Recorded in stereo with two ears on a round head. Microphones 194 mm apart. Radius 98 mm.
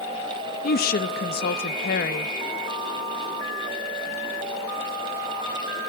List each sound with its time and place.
0.6 s a woman speaking: 40° left (ahead or behind), 0.9 m